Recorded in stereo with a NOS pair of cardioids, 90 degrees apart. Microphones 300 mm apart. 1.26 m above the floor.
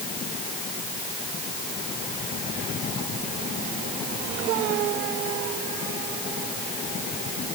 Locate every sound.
Only background noise.